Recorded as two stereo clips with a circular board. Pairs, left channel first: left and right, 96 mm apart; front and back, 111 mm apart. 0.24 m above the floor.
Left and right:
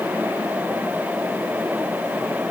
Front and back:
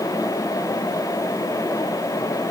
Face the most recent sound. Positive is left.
No sound to turn to.